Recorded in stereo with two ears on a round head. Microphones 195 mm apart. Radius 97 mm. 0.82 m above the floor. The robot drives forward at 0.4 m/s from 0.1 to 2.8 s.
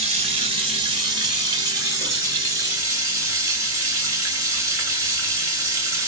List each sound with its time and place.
0.0 s running water: 25° right (ahead or behind), 0.9 m; by 6.1 s 15° right (ahead or behind), 1.8 m